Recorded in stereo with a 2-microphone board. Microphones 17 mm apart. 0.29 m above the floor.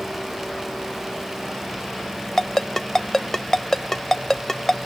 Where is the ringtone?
15° left (ahead or behind).